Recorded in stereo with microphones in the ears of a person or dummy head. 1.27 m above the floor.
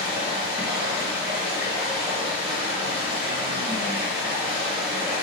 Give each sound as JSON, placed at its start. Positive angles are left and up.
{"t": 0.0, "sound": "running water", "side_deg": -10, "distance_m": 1.1}